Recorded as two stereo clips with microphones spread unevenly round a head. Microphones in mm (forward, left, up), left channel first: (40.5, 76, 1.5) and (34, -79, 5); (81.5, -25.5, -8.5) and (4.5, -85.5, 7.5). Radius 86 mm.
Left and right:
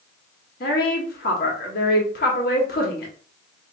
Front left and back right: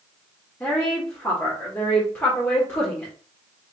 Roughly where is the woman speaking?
Behind left.